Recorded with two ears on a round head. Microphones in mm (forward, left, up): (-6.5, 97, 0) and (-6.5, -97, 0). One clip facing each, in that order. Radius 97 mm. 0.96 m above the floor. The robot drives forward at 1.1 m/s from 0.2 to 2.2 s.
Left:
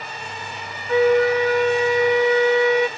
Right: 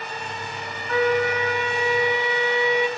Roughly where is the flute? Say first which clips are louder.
Left 6 dB; left.